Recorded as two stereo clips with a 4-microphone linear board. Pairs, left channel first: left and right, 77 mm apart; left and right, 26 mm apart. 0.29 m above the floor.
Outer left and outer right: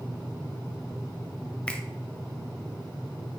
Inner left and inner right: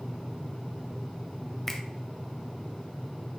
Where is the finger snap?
10° left (ahead or behind), 0.8 m.